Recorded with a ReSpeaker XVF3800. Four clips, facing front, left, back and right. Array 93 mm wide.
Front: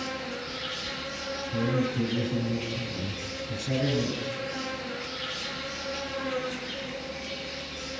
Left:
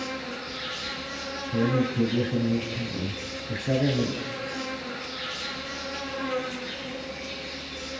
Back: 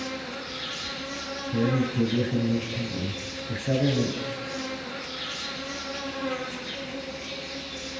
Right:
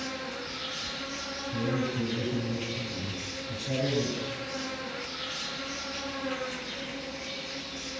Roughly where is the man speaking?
Behind left.